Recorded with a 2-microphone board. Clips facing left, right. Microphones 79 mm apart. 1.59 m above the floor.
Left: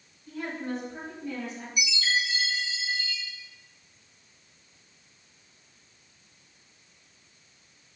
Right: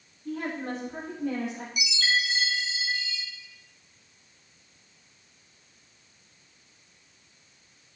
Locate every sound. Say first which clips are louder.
0.2 s a woman speaking: right 2 dB; 65° right (ahead or behind), 3 m; by 1.7 s 70° right (ahead or behind), 3 m
1.8 s a chime: even; 80° right, 2.5 m